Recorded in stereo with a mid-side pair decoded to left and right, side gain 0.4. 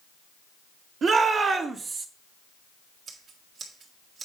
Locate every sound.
1.0 s a shout: 60° right, 2 m; by 2.1 s 50° right, 1.2 m
3.1 s scissors: 60° right, 1.7 m